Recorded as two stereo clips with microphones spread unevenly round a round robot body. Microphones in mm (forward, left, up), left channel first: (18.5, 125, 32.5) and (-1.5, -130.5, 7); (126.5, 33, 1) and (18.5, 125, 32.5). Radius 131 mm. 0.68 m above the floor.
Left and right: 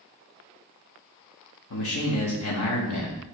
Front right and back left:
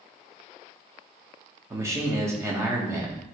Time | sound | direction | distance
1.7 | a man speaking | 65° left | 1.4 m